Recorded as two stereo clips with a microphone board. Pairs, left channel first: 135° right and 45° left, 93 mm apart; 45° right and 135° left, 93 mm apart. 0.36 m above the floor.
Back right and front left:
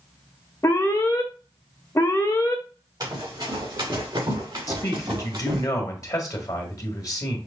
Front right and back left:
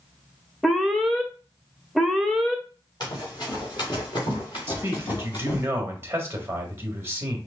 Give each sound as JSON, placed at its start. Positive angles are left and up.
{"t": 0.6, "sound": "an alarm", "azimuth_deg": -135, "distance_m": 0.6}
{"t": 3.0, "sound": "running footsteps", "azimuth_deg": -5, "distance_m": 3.0}
{"t": 4.7, "sound": "a man speaking", "azimuth_deg": -170, "distance_m": 1.2}